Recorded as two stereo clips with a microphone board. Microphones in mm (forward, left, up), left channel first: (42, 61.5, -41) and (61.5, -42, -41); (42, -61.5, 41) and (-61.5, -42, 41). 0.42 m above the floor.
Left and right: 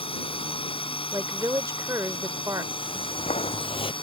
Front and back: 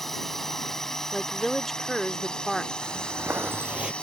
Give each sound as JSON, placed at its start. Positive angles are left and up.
{"t": 0.0, "sound": "a drone", "azimuth_deg": 75}
{"t": 1.1, "sound": "a woman speaking", "azimuth_deg": -95}
{"t": 2.8, "sound": "footsteps", "azimuth_deg": 105}